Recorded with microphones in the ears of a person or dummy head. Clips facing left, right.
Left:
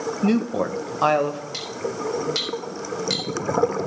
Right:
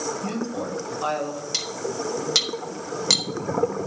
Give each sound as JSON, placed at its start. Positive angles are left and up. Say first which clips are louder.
{"t": 0.2, "sound": "a woman speaking", "louder": "left 7 dB", "side_deg": 75, "distance_m": 1.4}
{"t": 1.5, "sound": "cutlery clinking", "louder": "left 1 dB", "side_deg": -75, "distance_m": 2.0}